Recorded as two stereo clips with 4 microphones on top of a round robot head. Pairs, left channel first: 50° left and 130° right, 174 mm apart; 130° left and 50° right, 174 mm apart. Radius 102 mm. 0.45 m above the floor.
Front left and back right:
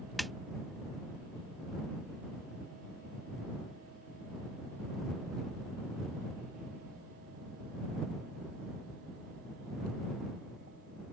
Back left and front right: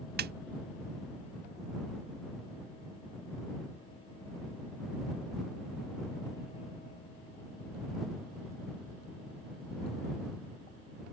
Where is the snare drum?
40° right.